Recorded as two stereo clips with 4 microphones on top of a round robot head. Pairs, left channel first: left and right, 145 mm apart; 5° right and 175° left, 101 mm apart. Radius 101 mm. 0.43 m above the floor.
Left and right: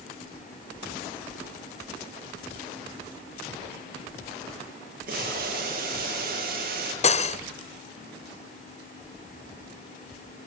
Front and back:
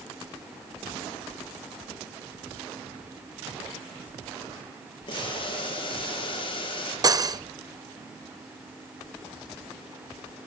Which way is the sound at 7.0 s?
125° left.